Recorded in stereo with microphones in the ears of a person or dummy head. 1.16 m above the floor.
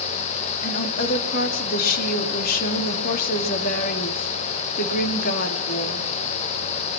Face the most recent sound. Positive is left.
turn(degrees=45)  # may be behind; listen again after turning